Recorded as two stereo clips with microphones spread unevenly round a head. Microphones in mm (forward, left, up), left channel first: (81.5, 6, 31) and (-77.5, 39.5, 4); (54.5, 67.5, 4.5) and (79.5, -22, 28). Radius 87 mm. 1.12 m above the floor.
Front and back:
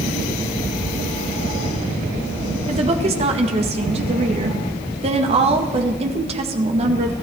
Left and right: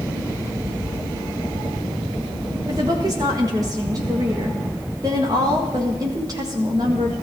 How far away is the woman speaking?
About 1.7 m.